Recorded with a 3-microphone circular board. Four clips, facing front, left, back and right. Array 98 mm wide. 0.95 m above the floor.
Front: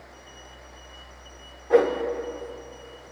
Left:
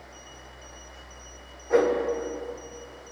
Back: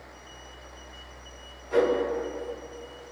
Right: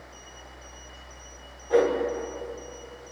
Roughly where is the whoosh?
Ahead.